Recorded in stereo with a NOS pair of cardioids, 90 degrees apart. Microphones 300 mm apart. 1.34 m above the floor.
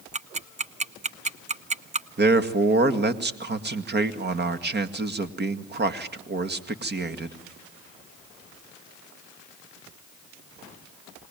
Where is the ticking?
25° right, 0.8 m.